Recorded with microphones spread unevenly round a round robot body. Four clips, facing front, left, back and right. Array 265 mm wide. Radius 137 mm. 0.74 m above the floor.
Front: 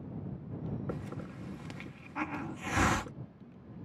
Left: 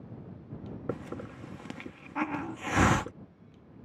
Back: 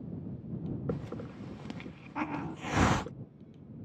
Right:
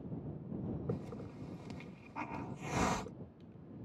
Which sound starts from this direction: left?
A hiss, at 0.9 s.